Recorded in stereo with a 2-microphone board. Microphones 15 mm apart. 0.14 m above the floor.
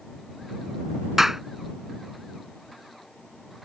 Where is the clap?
25° right (ahead or behind).